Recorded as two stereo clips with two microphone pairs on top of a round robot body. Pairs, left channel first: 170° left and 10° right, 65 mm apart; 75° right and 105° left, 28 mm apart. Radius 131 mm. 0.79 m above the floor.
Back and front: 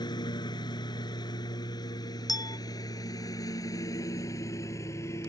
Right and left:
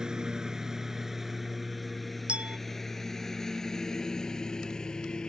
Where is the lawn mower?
170° left; by 5.3 s 140° right.